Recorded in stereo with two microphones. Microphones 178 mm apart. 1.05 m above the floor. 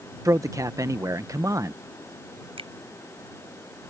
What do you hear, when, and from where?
0.2 s a man speaking: 20° right (ahead or behind)
2.6 s a finger snap: 30° right (ahead or behind)